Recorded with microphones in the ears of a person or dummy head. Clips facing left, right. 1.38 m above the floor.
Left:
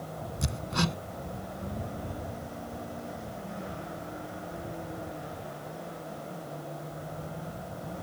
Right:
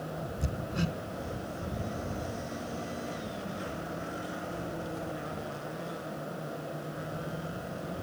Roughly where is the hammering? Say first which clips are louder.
Left 3 dB; left.